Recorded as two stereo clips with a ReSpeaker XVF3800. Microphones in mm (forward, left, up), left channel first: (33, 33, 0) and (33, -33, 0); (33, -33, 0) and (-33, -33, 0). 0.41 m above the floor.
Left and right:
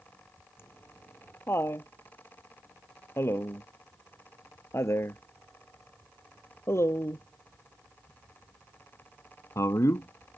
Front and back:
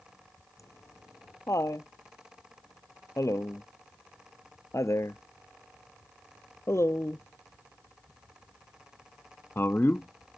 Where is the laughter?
40° left; by 10.4 s 55° left.